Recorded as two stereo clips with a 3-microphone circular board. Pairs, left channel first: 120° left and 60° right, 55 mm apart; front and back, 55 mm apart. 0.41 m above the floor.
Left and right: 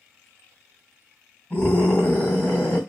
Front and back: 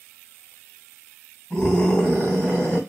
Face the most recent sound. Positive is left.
turn(degrees=65)